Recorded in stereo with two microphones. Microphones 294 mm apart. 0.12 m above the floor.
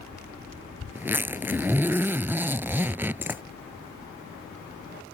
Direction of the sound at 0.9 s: 10° right (ahead or behind).